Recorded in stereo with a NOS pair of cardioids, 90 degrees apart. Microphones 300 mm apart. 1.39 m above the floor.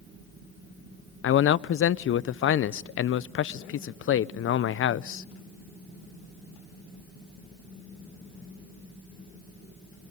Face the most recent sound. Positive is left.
turn(degrees=45)